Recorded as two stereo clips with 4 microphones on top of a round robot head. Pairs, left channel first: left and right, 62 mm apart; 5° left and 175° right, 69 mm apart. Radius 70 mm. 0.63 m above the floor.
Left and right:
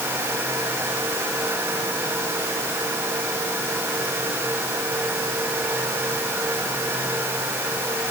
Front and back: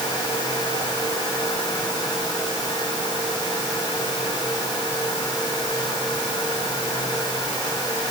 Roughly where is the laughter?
No laughter in this recording.